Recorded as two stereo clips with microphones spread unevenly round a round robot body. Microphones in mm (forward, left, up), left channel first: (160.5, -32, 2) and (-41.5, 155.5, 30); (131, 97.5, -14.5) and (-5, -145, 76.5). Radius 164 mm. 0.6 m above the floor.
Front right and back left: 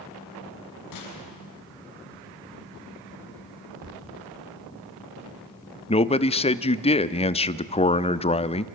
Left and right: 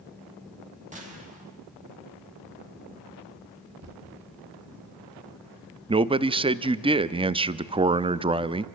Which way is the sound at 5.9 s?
30° right.